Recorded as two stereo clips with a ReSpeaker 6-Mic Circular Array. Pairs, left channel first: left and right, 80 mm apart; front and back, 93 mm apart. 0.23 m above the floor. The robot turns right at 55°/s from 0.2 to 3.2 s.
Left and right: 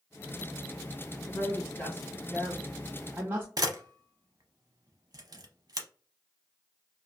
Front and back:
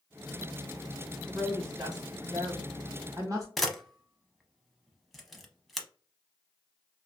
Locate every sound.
1.3 s a woman speaking: 115° left, 2 m; by 3.5 s 140° right, 2 m
3.6 s a camera shutter: 90° right, 0.7 m